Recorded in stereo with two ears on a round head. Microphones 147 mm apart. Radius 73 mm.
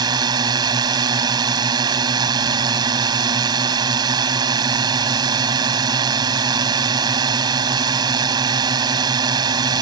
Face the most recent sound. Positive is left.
turn(degrees=-25)  # may be behind; listen again after turning